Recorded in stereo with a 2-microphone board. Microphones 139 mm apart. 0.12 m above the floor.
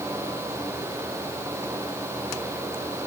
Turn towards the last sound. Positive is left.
No sound to turn to.